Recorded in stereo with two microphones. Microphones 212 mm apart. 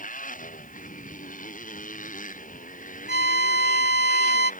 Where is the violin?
50° left (ahead or behind).